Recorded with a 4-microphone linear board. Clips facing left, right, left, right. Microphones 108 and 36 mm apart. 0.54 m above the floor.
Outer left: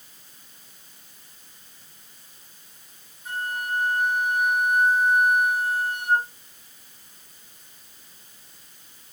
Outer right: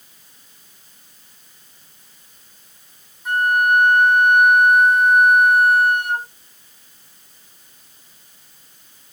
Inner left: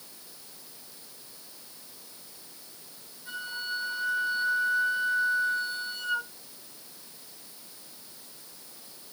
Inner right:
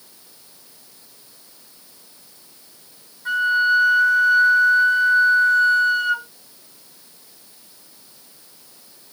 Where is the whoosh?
I don't hear a whoosh.